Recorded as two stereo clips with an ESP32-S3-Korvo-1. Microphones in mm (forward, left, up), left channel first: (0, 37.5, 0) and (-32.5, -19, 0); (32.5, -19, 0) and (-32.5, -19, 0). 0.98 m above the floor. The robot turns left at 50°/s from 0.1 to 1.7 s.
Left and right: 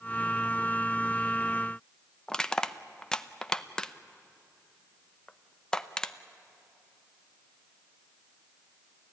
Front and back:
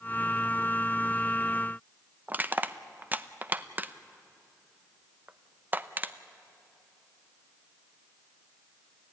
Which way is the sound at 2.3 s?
135° left.